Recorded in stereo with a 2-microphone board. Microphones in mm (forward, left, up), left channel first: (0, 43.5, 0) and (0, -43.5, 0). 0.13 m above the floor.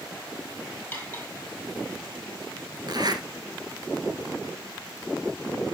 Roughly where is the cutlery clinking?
Centre.